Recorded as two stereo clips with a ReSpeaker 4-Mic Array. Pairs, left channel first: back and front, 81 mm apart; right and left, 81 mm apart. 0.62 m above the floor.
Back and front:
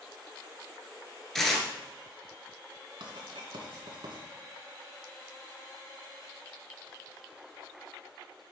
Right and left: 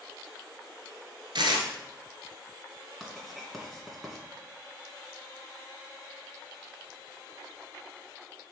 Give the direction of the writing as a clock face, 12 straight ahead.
12 o'clock.